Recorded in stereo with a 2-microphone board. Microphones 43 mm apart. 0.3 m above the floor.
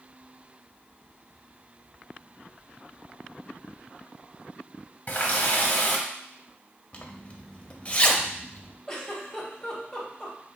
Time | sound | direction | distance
5.1 | a running tap | 40° left (ahead or behind) | 1.1 m
6.9 | a zipper | 30° left (ahead or behind) | 0.5 m
8.9 | a giggle | 15° left (ahead or behind) | 1.1 m